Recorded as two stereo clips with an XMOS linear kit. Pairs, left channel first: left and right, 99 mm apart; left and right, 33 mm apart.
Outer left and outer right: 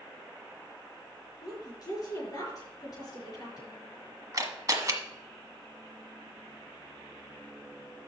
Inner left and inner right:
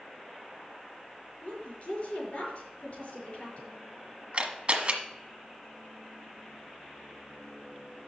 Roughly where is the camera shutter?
Right.